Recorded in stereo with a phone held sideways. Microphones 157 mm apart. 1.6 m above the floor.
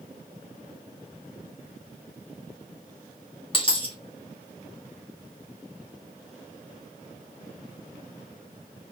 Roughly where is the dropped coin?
Left.